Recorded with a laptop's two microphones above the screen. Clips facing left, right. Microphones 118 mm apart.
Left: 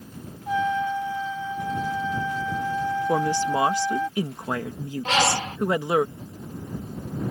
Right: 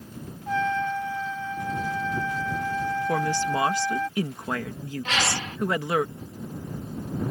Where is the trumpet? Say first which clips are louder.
Left 2 dB; 10° left (ahead or behind).